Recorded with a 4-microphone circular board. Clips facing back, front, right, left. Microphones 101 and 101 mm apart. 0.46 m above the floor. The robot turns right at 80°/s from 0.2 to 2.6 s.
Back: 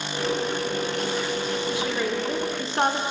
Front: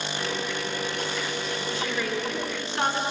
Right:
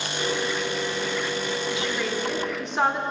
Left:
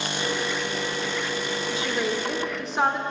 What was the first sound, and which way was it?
A woman speaking, 105° left.